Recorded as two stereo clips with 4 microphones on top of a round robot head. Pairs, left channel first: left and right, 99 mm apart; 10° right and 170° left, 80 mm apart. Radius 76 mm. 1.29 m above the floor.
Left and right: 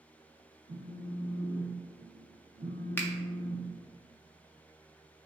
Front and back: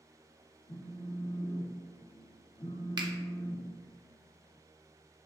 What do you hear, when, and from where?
0.7 s a phone buzzing: 50° right, 0.8 m
3.0 s a finger snap: 155° left, 0.6 m